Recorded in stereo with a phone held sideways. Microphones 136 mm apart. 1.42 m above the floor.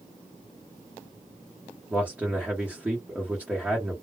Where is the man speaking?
10° right (ahead or behind), 1.1 m.